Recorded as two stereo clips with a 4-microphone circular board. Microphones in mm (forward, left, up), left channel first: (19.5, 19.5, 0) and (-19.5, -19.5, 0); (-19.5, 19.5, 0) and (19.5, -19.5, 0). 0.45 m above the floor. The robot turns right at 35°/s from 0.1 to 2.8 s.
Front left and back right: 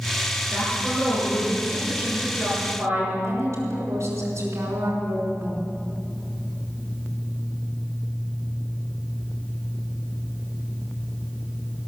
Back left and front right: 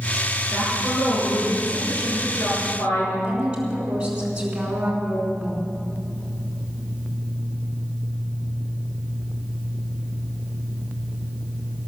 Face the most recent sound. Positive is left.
turn(degrees=-115)